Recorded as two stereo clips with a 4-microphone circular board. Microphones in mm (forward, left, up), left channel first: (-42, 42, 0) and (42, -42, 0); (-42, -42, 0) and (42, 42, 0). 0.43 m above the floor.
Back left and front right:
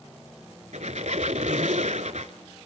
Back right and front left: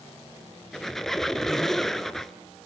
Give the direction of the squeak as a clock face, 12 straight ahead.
2 o'clock.